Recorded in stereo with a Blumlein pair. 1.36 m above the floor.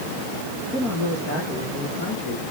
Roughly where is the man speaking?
Ahead left.